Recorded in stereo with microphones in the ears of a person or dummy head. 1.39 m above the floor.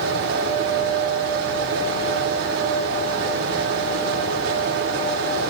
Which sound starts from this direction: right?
A fan, at 0.0 s.